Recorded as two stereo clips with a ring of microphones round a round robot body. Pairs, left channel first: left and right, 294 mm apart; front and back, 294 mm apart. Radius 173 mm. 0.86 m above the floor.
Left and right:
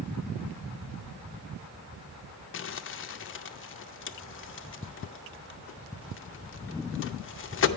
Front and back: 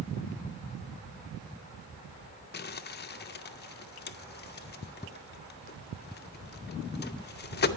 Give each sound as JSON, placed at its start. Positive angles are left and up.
{"t": 2.5, "sound": "crumpling", "azimuth_deg": 50, "distance_m": 0.5}